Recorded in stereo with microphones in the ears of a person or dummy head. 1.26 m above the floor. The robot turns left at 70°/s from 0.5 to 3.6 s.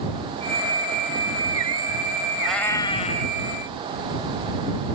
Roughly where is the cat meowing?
Behind.